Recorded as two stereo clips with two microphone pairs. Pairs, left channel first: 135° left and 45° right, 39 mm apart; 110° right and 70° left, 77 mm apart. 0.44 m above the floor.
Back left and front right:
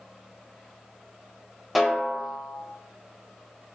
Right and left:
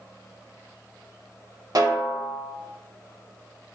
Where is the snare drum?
45° left, 0.7 m.